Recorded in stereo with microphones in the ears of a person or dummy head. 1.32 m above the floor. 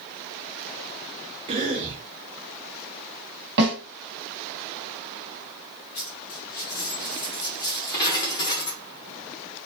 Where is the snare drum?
60° right (ahead or behind), 1.4 m.